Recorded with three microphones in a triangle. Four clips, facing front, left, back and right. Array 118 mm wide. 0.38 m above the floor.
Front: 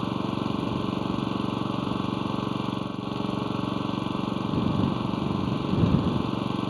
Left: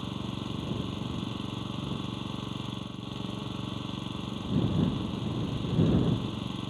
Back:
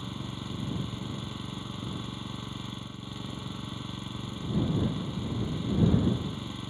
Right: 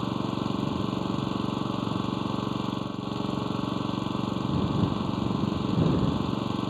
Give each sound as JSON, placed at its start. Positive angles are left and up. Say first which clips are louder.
{"t": 0.0, "sound": "an engine running", "louder": "right 7 dB, front 11 dB", "azimuth_deg": -35}